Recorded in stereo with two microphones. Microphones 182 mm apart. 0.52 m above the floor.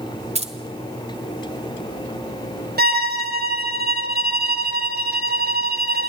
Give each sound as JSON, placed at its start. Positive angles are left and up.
{"t": 0.3, "sound": "keys jangling", "side_deg": -35, "distance_m": 1.4}
{"t": 2.8, "sound": "a violin", "side_deg": -60, "distance_m": 1.7}